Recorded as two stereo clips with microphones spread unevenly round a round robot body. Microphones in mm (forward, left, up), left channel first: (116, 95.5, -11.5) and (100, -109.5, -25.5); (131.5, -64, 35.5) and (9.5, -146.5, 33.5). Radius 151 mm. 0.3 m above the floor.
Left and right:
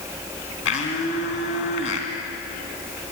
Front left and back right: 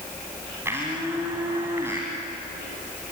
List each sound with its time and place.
0.7 s a blender: 135° left, 2.5 m